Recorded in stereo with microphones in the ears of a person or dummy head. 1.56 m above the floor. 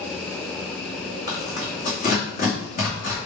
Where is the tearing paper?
45° left (ahead or behind), 2.5 m.